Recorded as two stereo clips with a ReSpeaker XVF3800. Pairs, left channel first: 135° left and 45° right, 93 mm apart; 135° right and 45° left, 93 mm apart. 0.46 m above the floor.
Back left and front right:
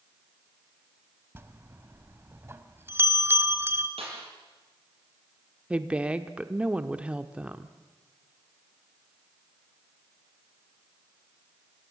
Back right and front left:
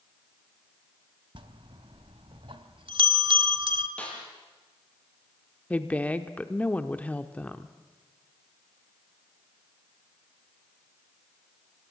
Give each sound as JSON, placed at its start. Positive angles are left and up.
{"t": 1.4, "sound": "a bell", "azimuth_deg": 20, "distance_m": 1.1}
{"t": 4.0, "sound": "a snare drum", "azimuth_deg": -55, "distance_m": 5.5}
{"t": 5.7, "sound": "a woman speaking", "azimuth_deg": -95, "distance_m": 0.8}